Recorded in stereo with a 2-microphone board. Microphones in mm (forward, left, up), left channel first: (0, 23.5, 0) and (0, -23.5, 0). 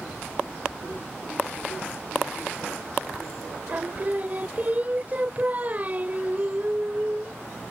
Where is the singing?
35° right (ahead or behind).